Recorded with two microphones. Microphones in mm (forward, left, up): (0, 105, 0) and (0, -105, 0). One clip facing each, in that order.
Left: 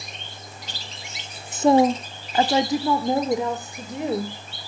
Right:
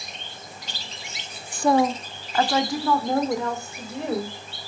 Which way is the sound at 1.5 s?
20° left (ahead or behind).